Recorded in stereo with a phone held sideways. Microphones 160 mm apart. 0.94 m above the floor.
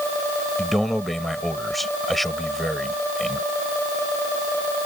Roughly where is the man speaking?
Centre.